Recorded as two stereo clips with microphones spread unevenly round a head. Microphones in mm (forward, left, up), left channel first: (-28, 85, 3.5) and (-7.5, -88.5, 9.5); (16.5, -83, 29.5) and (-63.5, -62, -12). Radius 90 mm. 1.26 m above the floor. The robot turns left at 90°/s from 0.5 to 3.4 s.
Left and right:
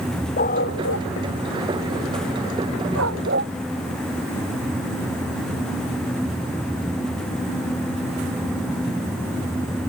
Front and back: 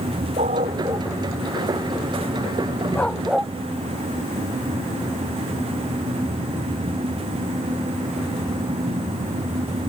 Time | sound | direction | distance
0.4 | a dog barking | 140° left | ?